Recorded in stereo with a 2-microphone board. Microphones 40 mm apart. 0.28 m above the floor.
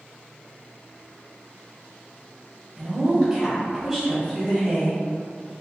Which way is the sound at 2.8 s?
25° right (ahead or behind).